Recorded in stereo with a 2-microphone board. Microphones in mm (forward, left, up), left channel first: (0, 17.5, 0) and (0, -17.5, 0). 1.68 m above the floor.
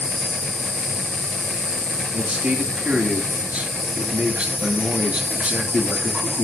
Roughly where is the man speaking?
Right.